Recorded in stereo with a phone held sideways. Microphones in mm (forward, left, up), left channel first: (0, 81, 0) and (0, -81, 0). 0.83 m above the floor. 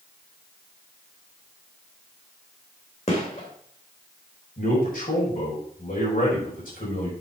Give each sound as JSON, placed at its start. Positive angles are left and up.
{"t": 3.1, "sound": "a gunshot", "side_deg": 45, "distance_m": 2.5}
{"t": 4.6, "sound": "a man speaking", "side_deg": 70, "distance_m": 4.5}